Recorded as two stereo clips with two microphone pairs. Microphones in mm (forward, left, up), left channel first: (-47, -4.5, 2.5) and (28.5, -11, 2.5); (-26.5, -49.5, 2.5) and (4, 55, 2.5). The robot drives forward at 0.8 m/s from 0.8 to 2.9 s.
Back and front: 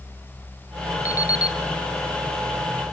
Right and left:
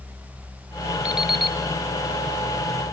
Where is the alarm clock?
150° left, 0.6 m; by 1.6 s 165° left, 0.9 m.